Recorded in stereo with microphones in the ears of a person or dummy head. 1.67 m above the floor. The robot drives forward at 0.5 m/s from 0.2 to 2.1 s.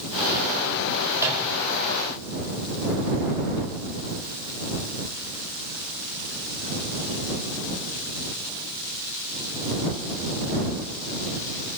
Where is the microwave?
15° right (ahead or behind), 5.5 m.